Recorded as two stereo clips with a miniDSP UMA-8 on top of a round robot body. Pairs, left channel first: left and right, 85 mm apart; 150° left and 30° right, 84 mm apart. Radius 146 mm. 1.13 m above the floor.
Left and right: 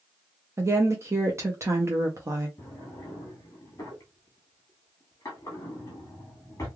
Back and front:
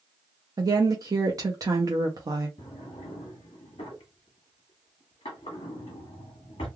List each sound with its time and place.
0.6 s a woman speaking: 50° right, 0.7 m
2.6 s a drawer: 145° left, 0.7 m